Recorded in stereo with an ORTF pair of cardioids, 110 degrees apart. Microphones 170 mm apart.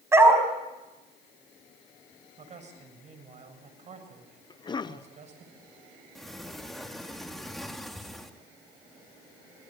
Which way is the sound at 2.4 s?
45° right.